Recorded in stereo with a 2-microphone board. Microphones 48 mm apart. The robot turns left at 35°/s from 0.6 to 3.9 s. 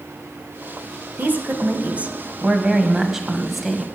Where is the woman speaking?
95° right, 1.5 m; by 3.9 s 175° left, 1.5 m.